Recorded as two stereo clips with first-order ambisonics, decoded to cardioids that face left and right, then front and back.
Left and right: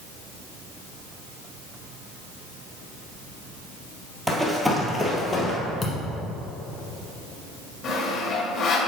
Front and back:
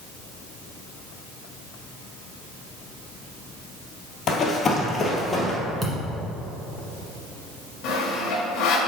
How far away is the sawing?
About 2 m.